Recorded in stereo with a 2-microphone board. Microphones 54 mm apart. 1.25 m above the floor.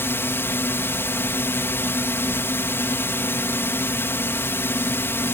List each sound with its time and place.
0.0 s a drone: 50° left (ahead or behind)